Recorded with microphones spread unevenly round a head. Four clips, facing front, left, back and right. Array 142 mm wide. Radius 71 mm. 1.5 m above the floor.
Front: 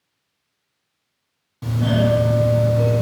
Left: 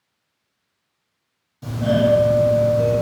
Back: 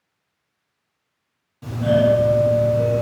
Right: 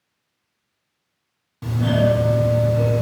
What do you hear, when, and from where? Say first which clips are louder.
1.6 s a doorbell: left 1 dB, back 3 dB; 55° right, 1.2 m